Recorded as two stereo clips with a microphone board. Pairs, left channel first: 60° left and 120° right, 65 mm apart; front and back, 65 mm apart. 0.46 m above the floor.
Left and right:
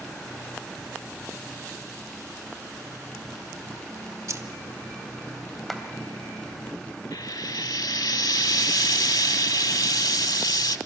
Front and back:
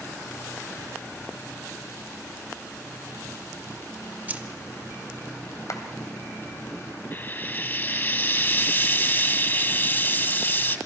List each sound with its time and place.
4.3 s keys jangling: 125° right, 1.0 m
5.7 s a clap: 30° right, 2.5 m
7.1 s frying: 55° left, 0.8 m